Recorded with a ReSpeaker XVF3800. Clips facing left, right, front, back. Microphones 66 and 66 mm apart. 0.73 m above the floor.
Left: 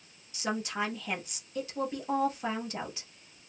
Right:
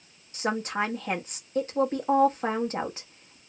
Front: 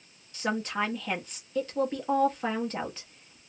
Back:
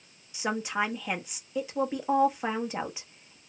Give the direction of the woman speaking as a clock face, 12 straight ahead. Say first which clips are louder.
Right 5 dB, even; 4 o'clock.